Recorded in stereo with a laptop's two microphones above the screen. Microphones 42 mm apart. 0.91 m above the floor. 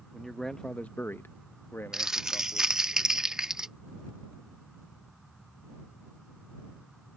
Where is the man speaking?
Centre (ahead or behind); by 2.8 s 45° left (ahead or behind).